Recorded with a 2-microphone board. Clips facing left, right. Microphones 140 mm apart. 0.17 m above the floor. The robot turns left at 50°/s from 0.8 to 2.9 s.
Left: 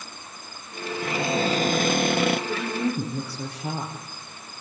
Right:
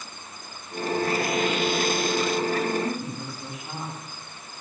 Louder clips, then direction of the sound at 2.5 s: Right 1 dB; 70° left (ahead or behind).